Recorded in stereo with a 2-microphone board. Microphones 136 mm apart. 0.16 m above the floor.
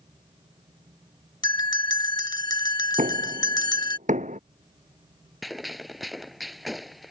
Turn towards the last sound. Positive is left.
turn(degrees=0)  # may be behind; listen again after turning